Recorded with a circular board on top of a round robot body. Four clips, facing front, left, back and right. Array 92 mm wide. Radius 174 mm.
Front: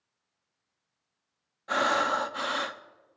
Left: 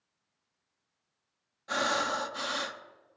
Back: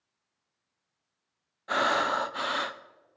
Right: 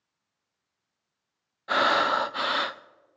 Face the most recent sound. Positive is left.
turn(degrees=-100)